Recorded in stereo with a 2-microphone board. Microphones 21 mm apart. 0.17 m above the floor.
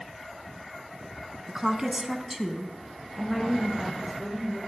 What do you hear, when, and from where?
1.5 s a woman speaking: 30° right (ahead or behind), 1.6 m; by 4.6 s 20° left (ahead or behind), 3.5 m